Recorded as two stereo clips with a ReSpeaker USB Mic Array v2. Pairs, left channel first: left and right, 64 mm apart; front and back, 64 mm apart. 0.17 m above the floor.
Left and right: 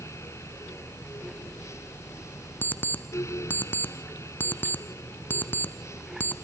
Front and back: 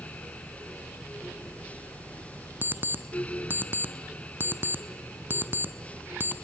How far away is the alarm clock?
About 0.9 m.